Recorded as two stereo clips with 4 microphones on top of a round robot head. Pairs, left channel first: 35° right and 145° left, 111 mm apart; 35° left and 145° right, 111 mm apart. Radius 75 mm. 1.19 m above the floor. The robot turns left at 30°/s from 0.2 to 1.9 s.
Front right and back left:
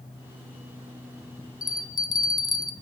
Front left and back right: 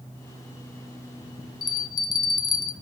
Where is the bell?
5° left, 0.7 m; by 2.7 s 5° right, 0.7 m.